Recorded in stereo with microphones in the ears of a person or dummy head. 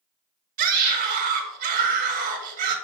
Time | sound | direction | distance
0.6 | a scream | 50° right (ahead or behind) | 2 m